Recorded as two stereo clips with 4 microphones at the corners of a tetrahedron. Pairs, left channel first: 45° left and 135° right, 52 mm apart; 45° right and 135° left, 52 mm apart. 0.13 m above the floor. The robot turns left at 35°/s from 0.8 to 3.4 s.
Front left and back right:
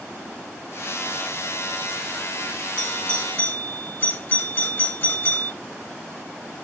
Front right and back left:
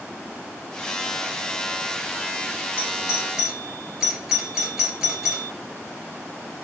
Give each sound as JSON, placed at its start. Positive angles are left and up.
{"t": 2.8, "sound": "a doorbell", "azimuth_deg": 80, "distance_m": 3.0}